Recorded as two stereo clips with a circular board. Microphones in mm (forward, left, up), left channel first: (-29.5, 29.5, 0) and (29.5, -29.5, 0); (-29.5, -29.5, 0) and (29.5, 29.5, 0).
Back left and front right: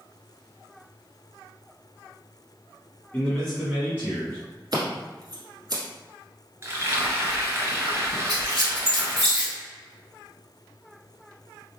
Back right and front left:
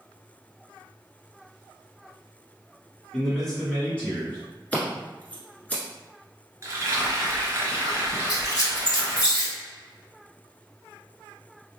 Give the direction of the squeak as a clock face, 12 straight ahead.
3 o'clock.